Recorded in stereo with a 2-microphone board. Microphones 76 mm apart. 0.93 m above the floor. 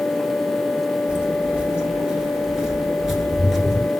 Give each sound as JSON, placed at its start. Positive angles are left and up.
{"t": 1.1, "sound": "footsteps", "side_deg": -15, "distance_m": 1.3}